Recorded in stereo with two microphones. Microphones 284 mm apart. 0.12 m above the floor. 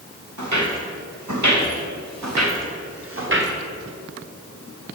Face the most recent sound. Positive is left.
turn(degrees=-40)  # may be behind; listen again after turning